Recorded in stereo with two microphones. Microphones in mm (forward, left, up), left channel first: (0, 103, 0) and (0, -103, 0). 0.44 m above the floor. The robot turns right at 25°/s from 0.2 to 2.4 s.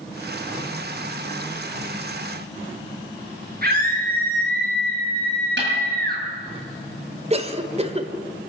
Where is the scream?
50° right (ahead or behind), 8.5 m.